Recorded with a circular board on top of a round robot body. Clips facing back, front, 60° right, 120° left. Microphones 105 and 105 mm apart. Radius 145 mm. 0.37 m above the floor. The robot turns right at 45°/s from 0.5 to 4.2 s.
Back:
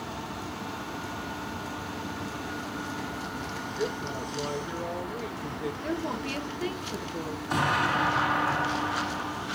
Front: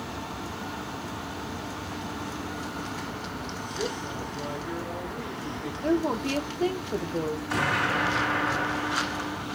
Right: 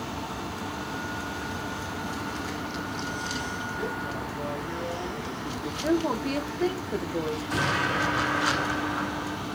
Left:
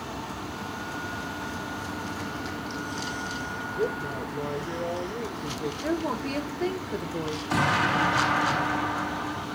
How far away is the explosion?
About 5 m.